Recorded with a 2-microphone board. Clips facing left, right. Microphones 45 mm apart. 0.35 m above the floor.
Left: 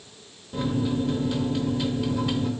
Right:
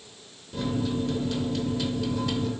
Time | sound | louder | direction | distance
0.5 | a microwave | left 2 dB | 15° left (ahead or behind) | 0.6 m